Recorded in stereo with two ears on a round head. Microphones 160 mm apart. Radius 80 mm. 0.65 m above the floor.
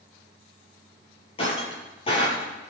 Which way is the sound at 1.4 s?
35° left (ahead or behind).